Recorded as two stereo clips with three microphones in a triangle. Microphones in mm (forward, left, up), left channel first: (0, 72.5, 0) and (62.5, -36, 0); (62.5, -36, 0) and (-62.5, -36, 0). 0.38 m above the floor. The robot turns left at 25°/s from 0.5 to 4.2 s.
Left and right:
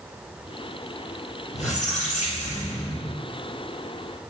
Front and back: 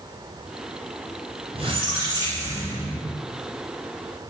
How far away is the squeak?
About 1.9 m.